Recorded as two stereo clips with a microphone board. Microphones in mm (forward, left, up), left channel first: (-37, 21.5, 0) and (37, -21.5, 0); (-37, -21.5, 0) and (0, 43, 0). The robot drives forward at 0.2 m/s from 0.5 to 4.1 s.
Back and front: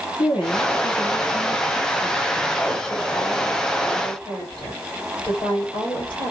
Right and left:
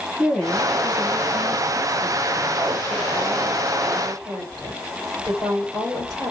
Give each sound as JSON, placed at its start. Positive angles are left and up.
{"t": 0.2, "sound": "a woman speaking", "azimuth_deg": 150, "distance_m": 2.5}